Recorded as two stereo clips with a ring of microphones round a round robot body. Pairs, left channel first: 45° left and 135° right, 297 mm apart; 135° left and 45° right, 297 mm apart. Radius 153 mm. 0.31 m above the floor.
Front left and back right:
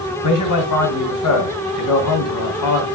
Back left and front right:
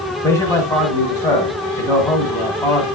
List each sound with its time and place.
0.2 s a man speaking: 55° left, 2.5 m